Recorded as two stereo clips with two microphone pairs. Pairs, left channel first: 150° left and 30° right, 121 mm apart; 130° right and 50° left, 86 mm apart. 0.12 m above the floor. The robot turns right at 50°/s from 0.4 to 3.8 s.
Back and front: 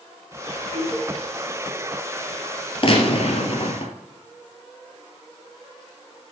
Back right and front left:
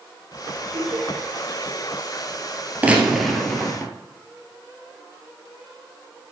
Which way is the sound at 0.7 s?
55° left.